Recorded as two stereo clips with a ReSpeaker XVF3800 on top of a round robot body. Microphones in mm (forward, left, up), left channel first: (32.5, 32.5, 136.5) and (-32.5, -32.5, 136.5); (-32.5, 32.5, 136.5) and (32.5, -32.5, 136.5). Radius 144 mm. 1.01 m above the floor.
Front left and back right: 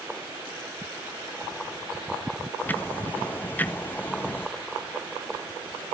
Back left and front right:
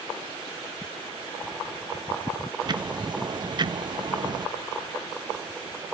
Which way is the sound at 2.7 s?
20° right.